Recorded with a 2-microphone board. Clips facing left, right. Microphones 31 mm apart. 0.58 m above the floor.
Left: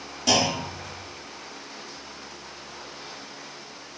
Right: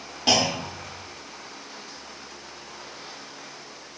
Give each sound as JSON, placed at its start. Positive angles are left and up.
{"t": 0.3, "sound": "a clunk", "side_deg": -35, "distance_m": 0.6}